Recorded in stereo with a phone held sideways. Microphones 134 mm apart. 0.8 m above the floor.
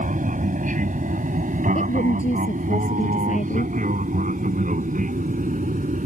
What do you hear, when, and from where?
0.0 s an aircraft: 75° right (ahead or behind); by 6.1 s 80° right
1.8 s a woman speaking: 70° left (ahead or behind)